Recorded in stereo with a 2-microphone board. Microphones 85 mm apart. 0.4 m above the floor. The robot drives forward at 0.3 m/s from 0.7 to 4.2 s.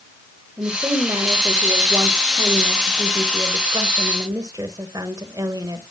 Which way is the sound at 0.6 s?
45° right (ahead or behind).